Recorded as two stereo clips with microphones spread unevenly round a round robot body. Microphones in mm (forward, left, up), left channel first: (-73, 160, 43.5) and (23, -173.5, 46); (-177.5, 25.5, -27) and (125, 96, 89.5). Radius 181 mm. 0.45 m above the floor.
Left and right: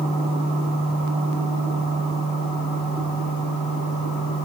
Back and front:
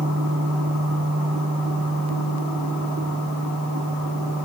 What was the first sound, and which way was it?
Only background noise.